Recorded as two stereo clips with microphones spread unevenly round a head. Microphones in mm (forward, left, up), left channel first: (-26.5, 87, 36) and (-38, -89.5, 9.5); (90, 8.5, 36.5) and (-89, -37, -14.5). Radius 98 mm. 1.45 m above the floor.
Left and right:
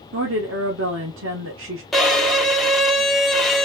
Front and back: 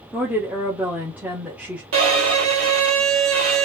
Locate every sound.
0.1 s a woman speaking: 85° right, 1.3 m
1.9 s a violin: 170° left, 2.0 m